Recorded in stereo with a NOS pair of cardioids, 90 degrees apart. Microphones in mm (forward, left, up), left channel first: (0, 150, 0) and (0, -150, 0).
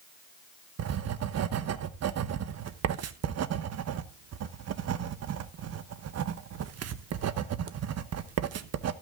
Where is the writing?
55° right, 1.1 m.